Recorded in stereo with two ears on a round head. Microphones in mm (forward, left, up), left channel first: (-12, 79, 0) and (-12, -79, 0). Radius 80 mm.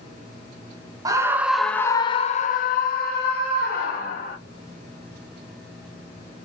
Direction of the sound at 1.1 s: 20° right (ahead or behind).